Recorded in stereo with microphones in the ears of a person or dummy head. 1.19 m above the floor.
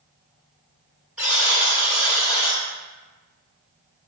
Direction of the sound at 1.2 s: Centre (ahead or behind).